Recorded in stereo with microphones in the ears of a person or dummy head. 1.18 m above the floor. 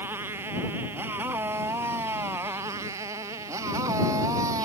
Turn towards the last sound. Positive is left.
turn(degrees=-20)  # may be behind; listen again after turning